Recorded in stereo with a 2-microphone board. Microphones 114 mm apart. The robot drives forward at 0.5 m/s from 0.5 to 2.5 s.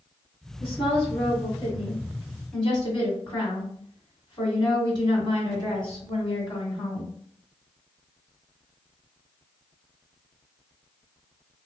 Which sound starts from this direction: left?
A woman speaking, at 0.6 s.